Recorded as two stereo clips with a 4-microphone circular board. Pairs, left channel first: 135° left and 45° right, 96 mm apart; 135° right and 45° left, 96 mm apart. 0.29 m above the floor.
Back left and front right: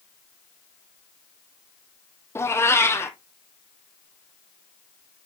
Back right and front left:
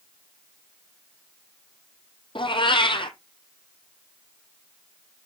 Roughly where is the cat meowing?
Behind.